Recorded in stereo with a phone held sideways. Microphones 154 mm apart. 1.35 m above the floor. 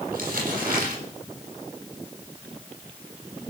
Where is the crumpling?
60° right (ahead or behind), 8.5 m.